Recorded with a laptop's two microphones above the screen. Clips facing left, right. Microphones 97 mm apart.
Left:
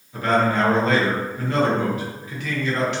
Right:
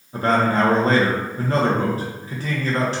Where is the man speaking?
35° right (ahead or behind), 0.7 m.